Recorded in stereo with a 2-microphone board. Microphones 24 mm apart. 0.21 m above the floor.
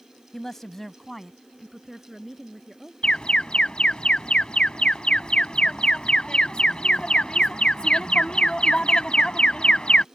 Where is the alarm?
40° left (ahead or behind).